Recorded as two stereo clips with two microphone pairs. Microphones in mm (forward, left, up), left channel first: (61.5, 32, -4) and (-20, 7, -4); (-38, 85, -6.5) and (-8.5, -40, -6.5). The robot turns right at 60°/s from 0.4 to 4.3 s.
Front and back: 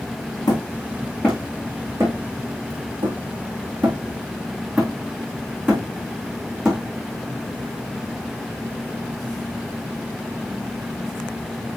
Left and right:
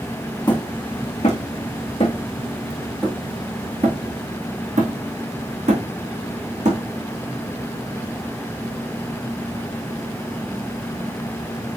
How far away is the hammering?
About 3 m.